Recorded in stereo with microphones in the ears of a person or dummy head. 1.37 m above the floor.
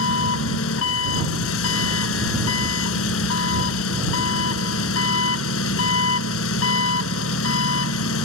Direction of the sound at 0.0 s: 80° left.